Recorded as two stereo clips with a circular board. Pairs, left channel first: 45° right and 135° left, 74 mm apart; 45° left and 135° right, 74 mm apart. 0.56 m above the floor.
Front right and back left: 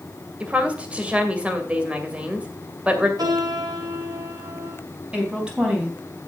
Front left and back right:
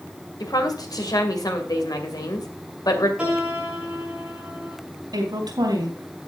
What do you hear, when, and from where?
0.4 s a woman speaking: 65° left, 2 m
3.2 s a piano: 150° left, 7 m
5.1 s a woman speaking: 150° right, 3.5 m